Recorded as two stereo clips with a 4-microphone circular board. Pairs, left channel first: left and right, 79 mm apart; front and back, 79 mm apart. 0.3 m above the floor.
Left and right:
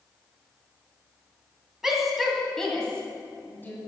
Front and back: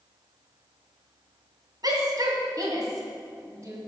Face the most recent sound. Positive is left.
turn(degrees=150)